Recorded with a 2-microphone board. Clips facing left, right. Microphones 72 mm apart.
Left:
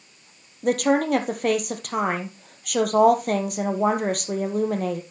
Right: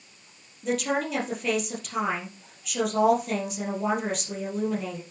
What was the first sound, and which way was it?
A woman speaking, 55° left (ahead or behind).